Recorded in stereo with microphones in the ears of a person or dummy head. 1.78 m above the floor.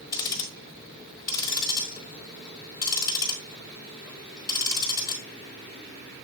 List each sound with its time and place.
0.1 s ticking: 20° left (ahead or behind), 1.3 m